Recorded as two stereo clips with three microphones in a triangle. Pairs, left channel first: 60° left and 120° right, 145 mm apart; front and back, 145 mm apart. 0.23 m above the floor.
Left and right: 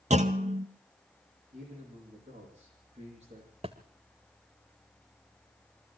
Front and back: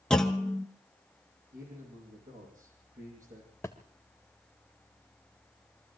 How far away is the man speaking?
About 10 m.